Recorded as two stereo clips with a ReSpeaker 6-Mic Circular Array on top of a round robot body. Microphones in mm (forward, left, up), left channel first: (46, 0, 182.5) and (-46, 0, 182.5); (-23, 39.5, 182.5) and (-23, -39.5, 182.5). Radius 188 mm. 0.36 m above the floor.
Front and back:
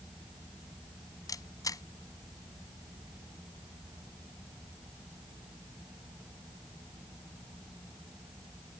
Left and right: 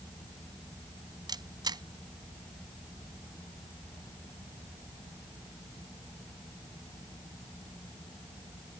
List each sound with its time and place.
1.3 s a camera shutter: 55° right